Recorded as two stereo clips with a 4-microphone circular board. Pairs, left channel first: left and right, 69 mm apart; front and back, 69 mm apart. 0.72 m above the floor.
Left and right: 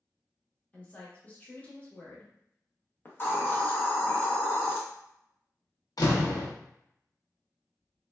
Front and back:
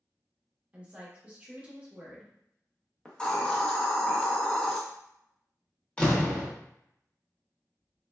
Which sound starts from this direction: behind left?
A woman speaking, at 0.7 s.